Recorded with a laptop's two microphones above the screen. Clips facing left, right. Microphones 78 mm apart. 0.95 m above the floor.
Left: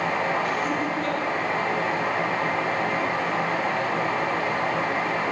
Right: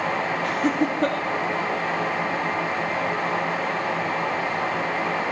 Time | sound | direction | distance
0.4 | laughter | 75° right (ahead or behind) | 1.8 m